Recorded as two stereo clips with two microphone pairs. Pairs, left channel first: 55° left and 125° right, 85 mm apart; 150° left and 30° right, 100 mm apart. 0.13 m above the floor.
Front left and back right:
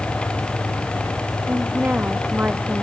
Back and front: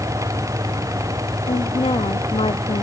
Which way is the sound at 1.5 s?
170° left.